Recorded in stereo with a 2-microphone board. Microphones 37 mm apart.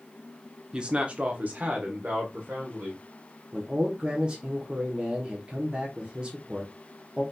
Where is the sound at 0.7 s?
25° right (ahead or behind), 0.7 m; by 3.0 s 55° right (ahead or behind), 1.5 m.